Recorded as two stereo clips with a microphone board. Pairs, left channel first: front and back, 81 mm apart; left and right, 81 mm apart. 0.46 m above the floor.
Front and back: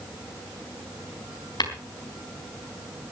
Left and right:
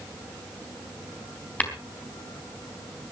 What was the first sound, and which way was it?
Tapping, 20° left.